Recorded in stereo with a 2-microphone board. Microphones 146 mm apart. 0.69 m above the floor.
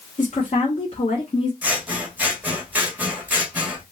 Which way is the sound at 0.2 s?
55° left (ahead or behind).